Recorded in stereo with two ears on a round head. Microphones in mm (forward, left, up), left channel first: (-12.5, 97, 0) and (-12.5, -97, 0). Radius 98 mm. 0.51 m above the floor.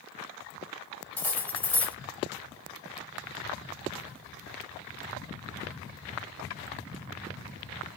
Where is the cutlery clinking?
10° left (ahead or behind), 1.7 m.